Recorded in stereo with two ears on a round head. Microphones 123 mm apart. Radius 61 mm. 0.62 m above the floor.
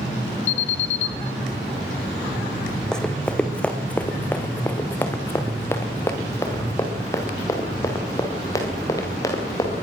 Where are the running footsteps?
5° left (ahead or behind), 2 m; by 9.7 s 25° left (ahead or behind), 5.5 m.